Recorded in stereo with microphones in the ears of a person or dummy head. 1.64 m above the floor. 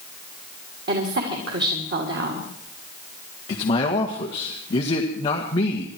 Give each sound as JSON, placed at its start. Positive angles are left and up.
{"t": 0.9, "sound": "a woman speaking", "side_deg": -65, "distance_m": 2.5}
{"t": 3.5, "sound": "a man speaking", "side_deg": 25, "distance_m": 1.6}